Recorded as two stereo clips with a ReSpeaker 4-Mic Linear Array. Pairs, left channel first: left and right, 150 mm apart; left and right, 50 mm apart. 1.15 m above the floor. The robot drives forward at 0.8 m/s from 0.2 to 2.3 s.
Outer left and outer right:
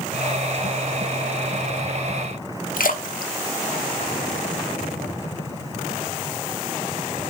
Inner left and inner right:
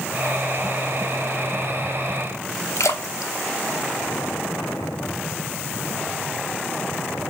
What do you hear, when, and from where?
2.8 s a splash: 70° left (ahead or behind), 0.7 m